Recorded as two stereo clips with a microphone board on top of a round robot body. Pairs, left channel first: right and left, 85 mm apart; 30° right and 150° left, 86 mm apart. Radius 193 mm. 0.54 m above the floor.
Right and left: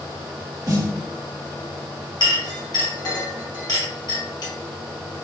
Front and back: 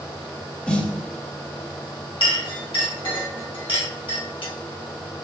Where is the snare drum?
45° left, 1.9 m.